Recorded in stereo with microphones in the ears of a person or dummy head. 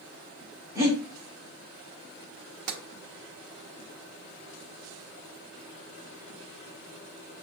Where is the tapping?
50° right (ahead or behind), 1.0 m.